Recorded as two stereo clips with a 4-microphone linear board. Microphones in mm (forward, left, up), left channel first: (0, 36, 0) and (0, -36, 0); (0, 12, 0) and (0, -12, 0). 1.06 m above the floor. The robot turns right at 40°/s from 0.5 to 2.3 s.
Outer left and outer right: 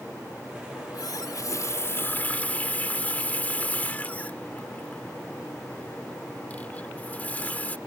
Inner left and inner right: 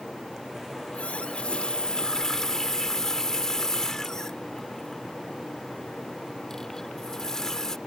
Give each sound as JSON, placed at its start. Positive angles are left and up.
{"t": 0.8, "sound": "a running tap", "azimuth_deg": 95}